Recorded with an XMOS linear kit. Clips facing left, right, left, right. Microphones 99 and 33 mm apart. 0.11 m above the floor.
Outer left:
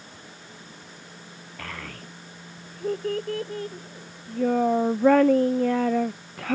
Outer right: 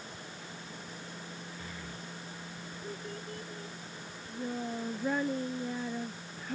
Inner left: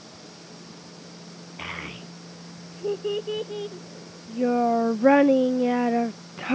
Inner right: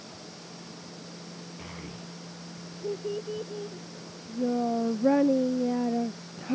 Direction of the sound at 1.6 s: 80° left.